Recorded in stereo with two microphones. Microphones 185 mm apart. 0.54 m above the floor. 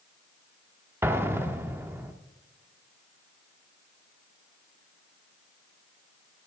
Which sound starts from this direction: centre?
An explosion, at 1.0 s.